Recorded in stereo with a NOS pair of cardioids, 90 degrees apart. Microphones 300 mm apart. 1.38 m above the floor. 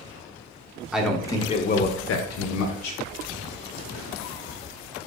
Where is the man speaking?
5° right, 0.8 m; by 3.0 s 80° left, 0.9 m.